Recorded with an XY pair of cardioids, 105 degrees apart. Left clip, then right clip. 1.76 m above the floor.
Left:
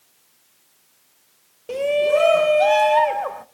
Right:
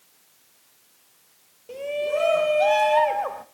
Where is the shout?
65° left, 0.6 m; by 3.5 s 10° left, 1.1 m.